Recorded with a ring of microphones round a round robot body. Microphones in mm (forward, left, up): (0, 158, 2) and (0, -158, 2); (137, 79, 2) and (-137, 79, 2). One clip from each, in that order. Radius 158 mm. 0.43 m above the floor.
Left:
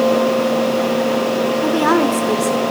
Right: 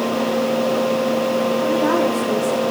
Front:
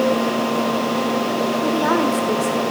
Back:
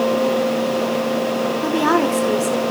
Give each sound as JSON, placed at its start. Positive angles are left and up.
{"t": 1.6, "sound": "a woman speaking", "azimuth_deg": 120, "distance_m": 1.1}